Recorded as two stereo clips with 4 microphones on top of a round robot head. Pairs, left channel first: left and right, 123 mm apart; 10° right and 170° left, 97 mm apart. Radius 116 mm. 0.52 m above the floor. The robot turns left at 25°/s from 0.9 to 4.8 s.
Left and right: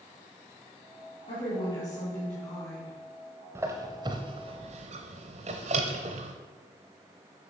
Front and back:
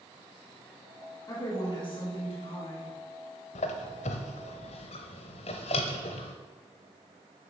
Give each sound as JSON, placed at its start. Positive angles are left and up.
{"t": 1.3, "sound": "a woman speaking", "azimuth_deg": 40, "distance_m": 4.5}
{"t": 3.5, "sound": "a squeak", "azimuth_deg": -15, "distance_m": 0.6}